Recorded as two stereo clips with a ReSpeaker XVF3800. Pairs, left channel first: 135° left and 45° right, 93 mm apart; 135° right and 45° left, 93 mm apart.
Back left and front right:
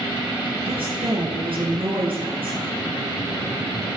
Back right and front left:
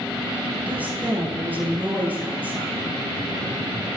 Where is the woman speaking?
30° right, 9.5 m.